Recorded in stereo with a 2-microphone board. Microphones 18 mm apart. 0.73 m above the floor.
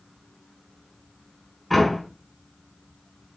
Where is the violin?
I don't hear a violin.